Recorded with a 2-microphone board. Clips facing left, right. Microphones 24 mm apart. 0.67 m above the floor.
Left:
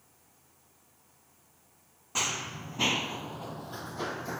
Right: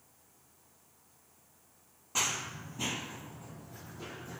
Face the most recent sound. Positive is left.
turn(degrees=70)  # may be behind; listen again after turning